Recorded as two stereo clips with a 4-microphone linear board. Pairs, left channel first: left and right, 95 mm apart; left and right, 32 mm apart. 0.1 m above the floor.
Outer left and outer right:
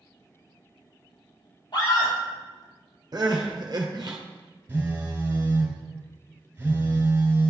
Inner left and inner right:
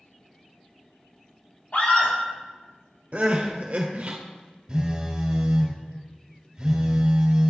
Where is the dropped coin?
I don't hear a dropped coin.